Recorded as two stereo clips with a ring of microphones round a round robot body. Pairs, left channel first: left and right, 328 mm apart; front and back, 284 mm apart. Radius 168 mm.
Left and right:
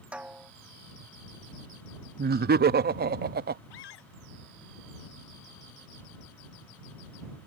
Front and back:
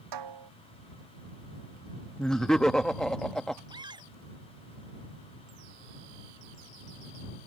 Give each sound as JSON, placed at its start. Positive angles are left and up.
{"t": 0.1, "sound": "a snare drum", "azimuth_deg": -175}
{"t": 2.2, "sound": "laughter", "azimuth_deg": -85}
{"t": 3.7, "sound": "a scream", "azimuth_deg": 105}